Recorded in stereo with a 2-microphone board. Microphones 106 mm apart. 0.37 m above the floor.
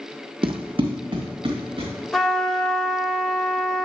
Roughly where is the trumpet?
Centre.